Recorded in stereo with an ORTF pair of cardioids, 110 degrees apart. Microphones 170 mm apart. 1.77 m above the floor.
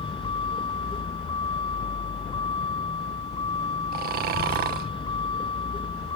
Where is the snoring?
60° right.